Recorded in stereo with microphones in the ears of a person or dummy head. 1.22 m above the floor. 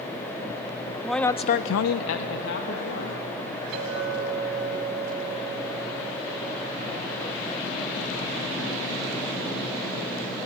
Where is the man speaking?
5° right (ahead or behind), 0.7 m; by 4.7 s 50° left (ahead or behind), 3.5 m.